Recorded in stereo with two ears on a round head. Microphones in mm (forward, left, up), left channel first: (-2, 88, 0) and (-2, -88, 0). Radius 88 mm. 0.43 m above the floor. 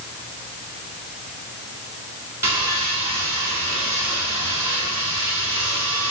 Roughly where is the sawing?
Centre.